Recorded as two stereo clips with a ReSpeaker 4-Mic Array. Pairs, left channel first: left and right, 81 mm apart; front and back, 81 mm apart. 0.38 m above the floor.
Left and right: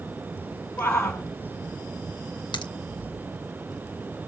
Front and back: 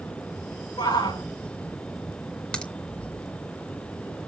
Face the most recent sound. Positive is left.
turn(degrees=80)